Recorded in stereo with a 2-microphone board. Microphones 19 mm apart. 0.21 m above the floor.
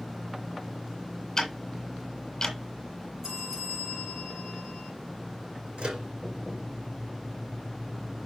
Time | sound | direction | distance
1.4 | ticking | 25° left (ahead or behind) | 1.8 m
3.2 | a bell | 30° right (ahead or behind) | 6 m
5.8 | a microwave | 70° right (ahead or behind) | 4 m